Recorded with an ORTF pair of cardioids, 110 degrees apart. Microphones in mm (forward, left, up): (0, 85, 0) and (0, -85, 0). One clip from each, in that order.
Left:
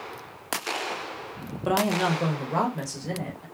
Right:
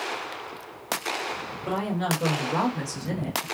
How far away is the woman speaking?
About 0.9 m.